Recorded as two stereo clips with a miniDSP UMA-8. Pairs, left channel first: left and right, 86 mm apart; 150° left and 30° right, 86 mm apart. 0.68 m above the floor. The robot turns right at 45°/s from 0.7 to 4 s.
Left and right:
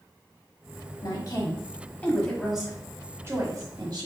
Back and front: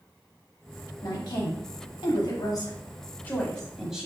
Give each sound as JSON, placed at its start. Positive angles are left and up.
{"t": 1.0, "sound": "a woman speaking", "azimuth_deg": 105, "distance_m": 1.2}